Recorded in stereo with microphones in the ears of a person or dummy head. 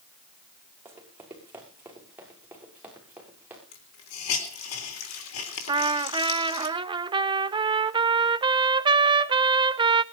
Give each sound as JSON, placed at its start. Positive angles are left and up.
{"t": 0.8, "sound": "running footsteps", "side_deg": -15, "distance_m": 5.5}
{"t": 3.7, "sound": "a hiss", "side_deg": 85, "distance_m": 3.5}
{"t": 5.7, "sound": "a trumpet", "side_deg": -25, "distance_m": 0.6}